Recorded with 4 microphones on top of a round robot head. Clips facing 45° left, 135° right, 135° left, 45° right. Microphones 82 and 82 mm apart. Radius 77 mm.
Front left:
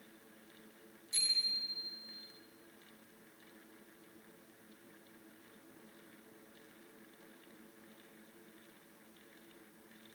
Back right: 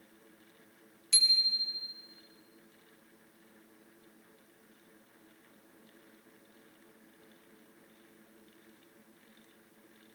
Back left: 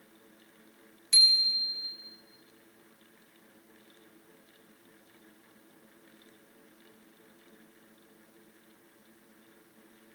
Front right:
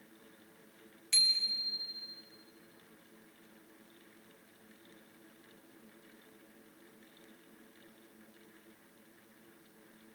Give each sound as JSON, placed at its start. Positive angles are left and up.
{"t": 1.1, "sound": "a bicycle bell", "azimuth_deg": -145, "distance_m": 4.5}